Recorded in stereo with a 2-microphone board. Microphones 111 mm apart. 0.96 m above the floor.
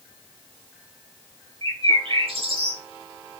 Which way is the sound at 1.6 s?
55° right (ahead or behind).